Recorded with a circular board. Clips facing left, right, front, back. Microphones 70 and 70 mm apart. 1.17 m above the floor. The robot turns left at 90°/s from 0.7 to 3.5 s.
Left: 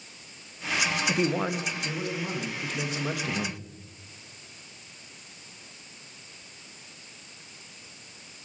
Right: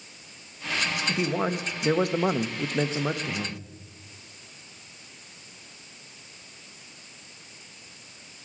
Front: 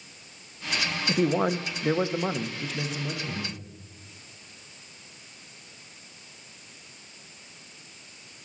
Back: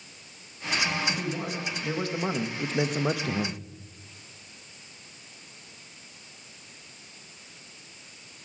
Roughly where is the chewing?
No chewing in this recording.